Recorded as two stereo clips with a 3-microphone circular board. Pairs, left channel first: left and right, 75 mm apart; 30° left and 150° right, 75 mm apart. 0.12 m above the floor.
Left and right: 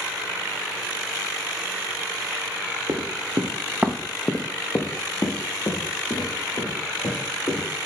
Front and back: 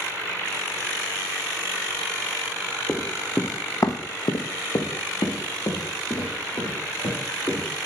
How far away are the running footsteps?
About 0.9 m.